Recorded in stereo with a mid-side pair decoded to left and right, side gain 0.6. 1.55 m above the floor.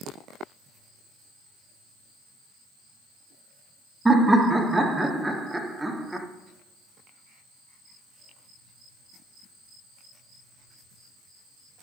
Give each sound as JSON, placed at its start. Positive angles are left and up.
{"t": 4.0, "sound": "laughter", "azimuth_deg": -15, "distance_m": 1.0}